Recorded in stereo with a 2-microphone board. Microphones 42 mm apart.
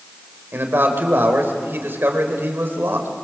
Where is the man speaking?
65° right (ahead or behind), 4 m.